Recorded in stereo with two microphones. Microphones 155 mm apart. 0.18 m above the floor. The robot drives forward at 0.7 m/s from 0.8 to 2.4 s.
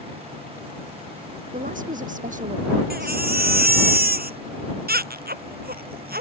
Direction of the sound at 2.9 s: 80° right.